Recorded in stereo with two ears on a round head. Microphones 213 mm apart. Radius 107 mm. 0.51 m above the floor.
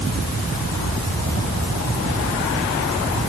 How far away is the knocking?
No knocking in this recording.